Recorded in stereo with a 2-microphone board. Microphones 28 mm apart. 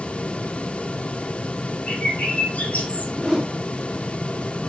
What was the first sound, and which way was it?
A bird, 70° left (ahead or behind).